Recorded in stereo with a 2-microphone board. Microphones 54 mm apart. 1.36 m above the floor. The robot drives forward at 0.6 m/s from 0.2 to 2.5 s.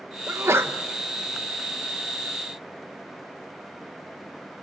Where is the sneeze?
45° right (ahead or behind), 1.2 m; by 0.7 s 55° right (ahead or behind), 1.0 m.